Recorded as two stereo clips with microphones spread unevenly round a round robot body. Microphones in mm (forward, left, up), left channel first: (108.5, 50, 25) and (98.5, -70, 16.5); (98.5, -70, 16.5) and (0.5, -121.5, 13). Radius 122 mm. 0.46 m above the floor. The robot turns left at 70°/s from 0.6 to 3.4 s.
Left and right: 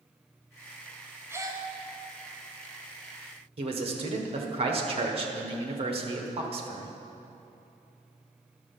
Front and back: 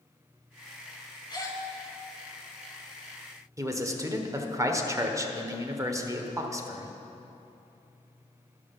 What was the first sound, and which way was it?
A gasp, 20° right.